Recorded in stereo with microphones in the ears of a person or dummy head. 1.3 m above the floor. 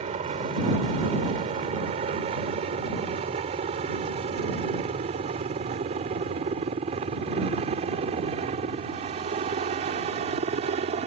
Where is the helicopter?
30° right (ahead or behind).